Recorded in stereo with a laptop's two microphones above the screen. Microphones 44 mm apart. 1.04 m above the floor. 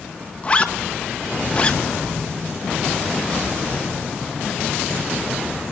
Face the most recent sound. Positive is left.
turn(degrees=30)  # may be behind; listen again after turning